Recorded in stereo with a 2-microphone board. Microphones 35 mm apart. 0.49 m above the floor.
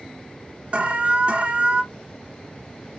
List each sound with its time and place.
0.7 s an alarm: 35° right (ahead or behind), 0.5 m